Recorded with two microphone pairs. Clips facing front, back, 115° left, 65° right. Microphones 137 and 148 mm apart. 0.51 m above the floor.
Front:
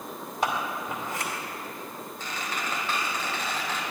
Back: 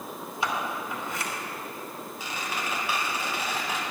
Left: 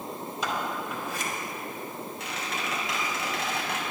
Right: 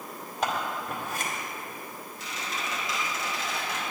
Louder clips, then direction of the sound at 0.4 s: Front 2 dB, right 2 dB; 40° right.